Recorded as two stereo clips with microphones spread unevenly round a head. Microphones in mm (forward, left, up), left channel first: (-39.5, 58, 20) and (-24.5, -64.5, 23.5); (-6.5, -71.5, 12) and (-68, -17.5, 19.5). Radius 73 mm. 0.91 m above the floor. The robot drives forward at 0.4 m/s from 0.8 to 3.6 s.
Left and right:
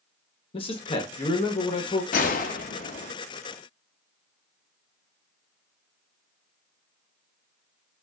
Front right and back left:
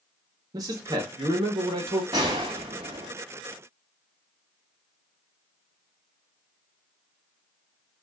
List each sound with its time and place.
0.5 s a man speaking: 105° left, 0.9 m; by 2.0 s 135° left, 1.1 m
2.1 s a gunshot: 75° left, 0.6 m; by 3.1 s 115° left, 0.6 m